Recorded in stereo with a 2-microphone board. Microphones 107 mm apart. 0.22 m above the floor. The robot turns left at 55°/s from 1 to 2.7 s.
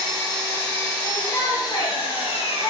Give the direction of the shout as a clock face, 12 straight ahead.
7 o'clock.